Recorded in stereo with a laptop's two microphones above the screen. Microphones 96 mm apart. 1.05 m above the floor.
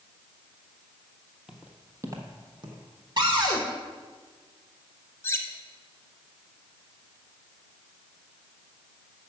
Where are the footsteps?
5° right (ahead or behind), 1.2 m; by 2.8 s 55° right (ahead or behind), 1.7 m.